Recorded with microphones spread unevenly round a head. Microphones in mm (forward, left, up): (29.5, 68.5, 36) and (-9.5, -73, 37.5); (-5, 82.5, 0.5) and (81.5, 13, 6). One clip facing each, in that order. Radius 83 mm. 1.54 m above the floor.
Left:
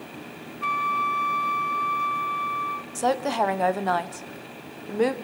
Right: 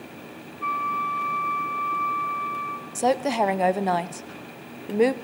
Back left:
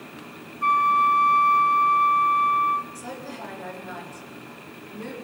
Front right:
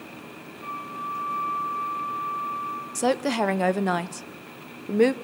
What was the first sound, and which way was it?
A flute, 135° left.